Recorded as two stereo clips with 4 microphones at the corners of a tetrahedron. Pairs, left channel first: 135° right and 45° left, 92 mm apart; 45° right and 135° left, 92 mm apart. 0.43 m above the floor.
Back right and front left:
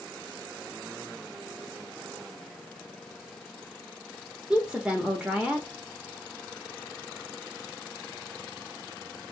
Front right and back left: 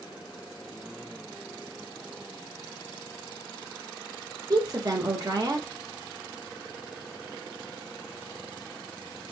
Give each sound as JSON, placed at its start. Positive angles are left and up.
{"t": 4.5, "sound": "a woman speaking", "azimuth_deg": 120, "distance_m": 1.0}